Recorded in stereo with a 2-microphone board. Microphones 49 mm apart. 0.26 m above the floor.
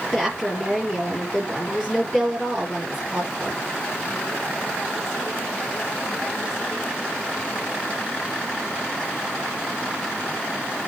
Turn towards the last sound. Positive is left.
turn(degrees=0)  # may be behind; listen again after turning